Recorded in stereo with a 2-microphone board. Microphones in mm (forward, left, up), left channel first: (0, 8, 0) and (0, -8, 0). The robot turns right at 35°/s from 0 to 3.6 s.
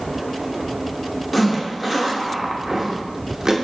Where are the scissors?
I don't hear scissors.